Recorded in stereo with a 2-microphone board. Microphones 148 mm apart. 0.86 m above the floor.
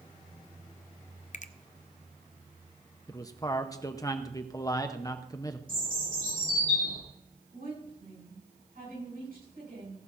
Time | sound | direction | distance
1.3 | a finger snap | 55° left (ahead or behind) | 0.5 m
3.1 | a man speaking | 25° left (ahead or behind) | 0.7 m
5.7 | a bird | 75° right (ahead or behind) | 4.5 m
7.5 | a woman speaking | 85° right | 7.5 m